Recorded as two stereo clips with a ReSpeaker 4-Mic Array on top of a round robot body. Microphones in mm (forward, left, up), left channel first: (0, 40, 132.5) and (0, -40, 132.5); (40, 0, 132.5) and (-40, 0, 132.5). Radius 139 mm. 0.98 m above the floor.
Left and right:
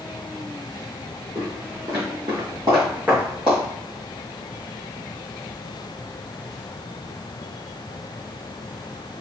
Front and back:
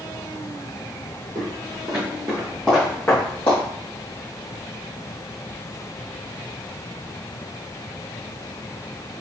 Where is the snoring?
No snoring in this recording.